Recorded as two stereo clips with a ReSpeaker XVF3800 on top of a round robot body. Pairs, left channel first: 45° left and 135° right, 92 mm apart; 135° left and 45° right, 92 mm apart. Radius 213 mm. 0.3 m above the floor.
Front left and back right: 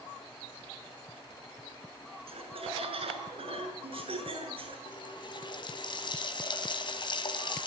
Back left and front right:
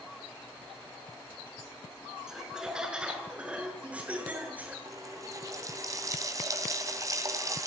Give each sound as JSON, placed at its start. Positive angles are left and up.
{"t": 2.3, "sound": "laughter", "azimuth_deg": -130, "distance_m": 6.0}
{"t": 4.8, "sound": "a running tap", "azimuth_deg": 10, "distance_m": 3.0}